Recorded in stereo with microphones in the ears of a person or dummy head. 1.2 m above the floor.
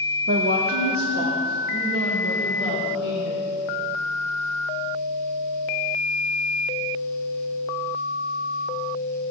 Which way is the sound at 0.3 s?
45° right (ahead or behind).